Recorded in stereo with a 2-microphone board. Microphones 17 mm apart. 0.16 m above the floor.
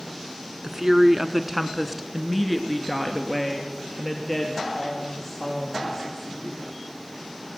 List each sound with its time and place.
0.6 s a woman speaking: 45° right (ahead or behind), 1.6 m; by 6.7 s 25° left (ahead or behind), 6 m